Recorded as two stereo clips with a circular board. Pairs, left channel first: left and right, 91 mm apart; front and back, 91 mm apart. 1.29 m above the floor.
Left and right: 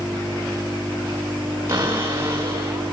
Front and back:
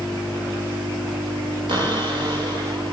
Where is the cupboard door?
150° right, 6.5 m.